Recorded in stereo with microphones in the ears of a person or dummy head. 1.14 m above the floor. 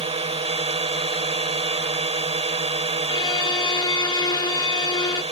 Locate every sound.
0.0 s a drone: 25° right (ahead or behind)
3.1 s a violin: 20° left (ahead or behind)